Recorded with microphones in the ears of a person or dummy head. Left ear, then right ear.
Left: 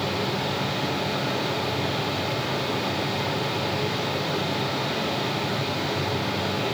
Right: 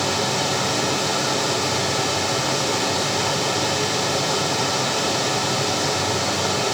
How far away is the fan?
About 5 m.